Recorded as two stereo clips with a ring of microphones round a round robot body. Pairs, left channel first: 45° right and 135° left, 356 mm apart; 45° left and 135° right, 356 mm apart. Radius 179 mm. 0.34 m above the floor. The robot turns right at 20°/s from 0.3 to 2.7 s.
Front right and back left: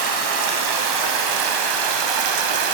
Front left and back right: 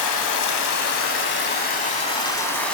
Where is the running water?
85° left, 0.8 m; by 2.7 s 130° left, 0.8 m.